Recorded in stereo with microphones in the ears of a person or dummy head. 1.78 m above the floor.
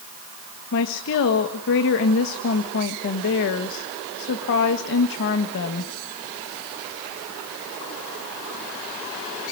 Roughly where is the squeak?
I don't hear a squeak.